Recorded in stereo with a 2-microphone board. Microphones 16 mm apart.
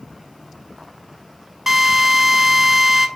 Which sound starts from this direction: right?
A drill, at 1.7 s.